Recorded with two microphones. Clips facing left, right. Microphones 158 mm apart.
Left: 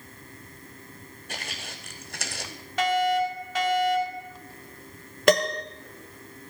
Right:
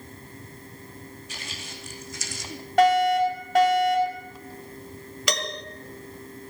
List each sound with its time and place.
1.3 s footsteps: 55° left (ahead or behind), 1.9 m; by 2.5 s 60° left (ahead or behind), 1.2 m
2.8 s a fire alarm: 50° right (ahead or behind), 3.5 m
5.3 s a piano: 50° left (ahead or behind), 1.0 m